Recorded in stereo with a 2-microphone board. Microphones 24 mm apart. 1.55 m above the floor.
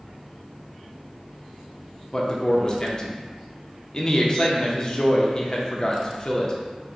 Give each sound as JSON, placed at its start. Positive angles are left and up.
{"t": 2.1, "sound": "a man speaking", "side_deg": 35, "distance_m": 0.5}